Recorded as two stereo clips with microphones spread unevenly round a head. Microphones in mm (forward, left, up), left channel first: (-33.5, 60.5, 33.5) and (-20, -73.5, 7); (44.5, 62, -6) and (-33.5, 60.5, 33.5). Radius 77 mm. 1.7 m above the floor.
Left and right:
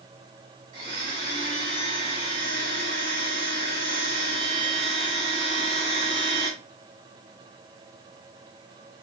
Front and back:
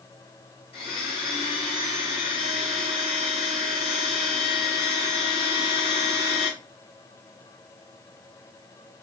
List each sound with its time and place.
0.7 s a blender: 15° right, 1.4 m